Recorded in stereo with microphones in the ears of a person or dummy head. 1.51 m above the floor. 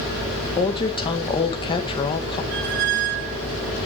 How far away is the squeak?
About 0.9 m.